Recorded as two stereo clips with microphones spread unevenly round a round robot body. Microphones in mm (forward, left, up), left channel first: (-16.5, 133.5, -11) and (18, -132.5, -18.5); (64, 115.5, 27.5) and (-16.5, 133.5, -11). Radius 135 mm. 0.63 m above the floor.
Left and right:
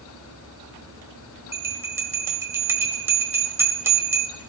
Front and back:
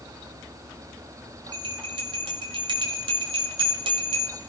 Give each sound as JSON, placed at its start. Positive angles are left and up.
{"t": 1.5, "sound": "a bell", "azimuth_deg": -165, "distance_m": 1.4}